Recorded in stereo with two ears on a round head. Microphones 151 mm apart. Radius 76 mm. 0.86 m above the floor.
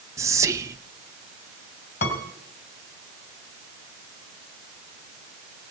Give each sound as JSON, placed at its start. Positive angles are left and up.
{"t": 0.2, "sound": "whispering", "side_deg": -20, "distance_m": 0.5}
{"t": 2.0, "sound": "a piano", "side_deg": 45, "distance_m": 2.5}